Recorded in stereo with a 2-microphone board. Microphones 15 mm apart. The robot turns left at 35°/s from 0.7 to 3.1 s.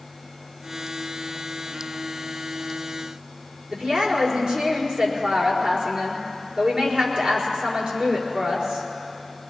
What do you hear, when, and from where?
3.7 s a woman speaking: 75° right (ahead or behind), 4.5 m